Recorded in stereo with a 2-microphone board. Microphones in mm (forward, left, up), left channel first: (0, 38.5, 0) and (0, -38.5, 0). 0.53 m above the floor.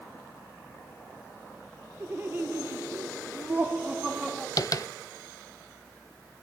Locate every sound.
2.0 s laughter: 30° right (ahead or behind), 1.6 m; by 4.5 s 15° right (ahead or behind), 1.5 m
4.6 s tapping: 55° left (ahead or behind), 0.9 m